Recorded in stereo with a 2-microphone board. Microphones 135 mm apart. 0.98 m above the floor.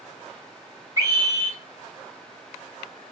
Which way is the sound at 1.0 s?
25° right (ahead or behind).